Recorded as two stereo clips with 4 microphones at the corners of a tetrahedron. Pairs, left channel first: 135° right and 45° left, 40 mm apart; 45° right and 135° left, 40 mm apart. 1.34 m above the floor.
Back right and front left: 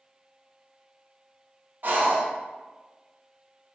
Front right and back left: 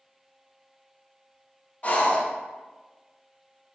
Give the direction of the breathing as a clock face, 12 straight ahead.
12 o'clock.